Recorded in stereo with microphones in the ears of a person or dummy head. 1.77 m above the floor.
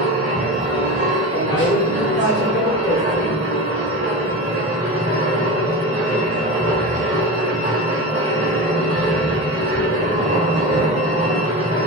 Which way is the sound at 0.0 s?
15° right (ahead or behind).